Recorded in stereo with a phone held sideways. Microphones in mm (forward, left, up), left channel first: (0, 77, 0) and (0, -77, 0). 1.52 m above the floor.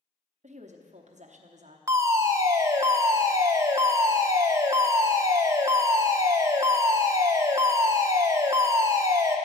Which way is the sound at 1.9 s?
20° right (ahead or behind).